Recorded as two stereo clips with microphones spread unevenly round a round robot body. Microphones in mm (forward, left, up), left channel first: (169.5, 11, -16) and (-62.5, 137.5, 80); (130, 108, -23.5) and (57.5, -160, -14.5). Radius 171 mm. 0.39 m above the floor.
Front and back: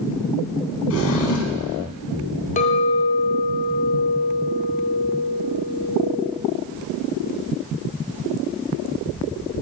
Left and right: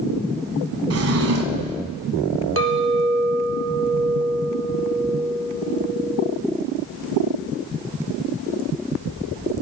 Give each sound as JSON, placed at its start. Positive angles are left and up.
{"t": 0.9, "sound": "a drawer", "azimuth_deg": -70, "distance_m": 1.2}
{"t": 2.6, "sound": "a clink", "azimuth_deg": -70, "distance_m": 0.6}